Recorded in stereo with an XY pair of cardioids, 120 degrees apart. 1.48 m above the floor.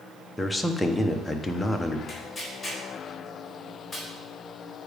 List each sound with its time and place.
0.4 s a man speaking: 10° left, 0.9 m
2.1 s tearing paper: 15° left, 4 m